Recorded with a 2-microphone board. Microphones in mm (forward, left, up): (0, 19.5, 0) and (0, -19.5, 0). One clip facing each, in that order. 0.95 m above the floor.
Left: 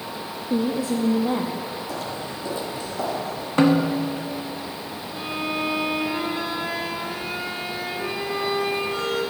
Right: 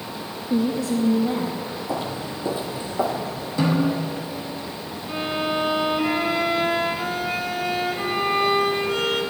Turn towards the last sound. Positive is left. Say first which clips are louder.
# right 4 dB
turn(degrees=-75)  # may be behind; listen again after turning